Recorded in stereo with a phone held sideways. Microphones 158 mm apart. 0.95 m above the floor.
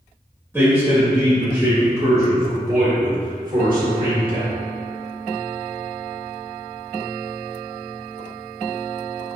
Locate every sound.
0.5 s a man speaking: 15° right (ahead or behind), 1.8 m; by 4.5 s 70° right (ahead or behind), 1.8 m